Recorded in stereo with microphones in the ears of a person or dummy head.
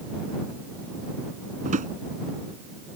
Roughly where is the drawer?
Right.